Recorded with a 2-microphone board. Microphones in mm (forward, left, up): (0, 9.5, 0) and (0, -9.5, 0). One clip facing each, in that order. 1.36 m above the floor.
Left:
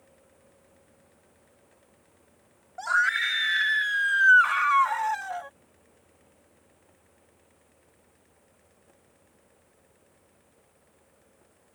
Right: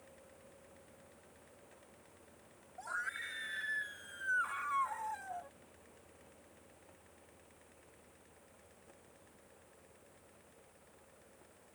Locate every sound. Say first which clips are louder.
2.8 s a scream: left 17 dB; 65° left (ahead or behind); by 5.5 s 80° left